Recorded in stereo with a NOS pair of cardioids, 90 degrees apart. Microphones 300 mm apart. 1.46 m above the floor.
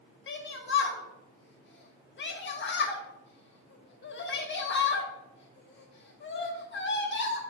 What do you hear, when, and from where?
0.3 s a shout: 40° left, 1.0 m